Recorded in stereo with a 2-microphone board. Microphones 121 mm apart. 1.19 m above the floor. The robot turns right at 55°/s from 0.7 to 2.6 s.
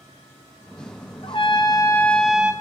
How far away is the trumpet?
About 0.6 m.